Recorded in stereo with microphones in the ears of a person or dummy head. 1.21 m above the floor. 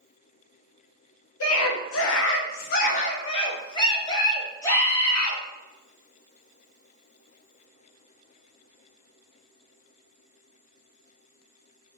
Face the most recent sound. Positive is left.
turn(degrees=15)  # may be behind; listen again after turning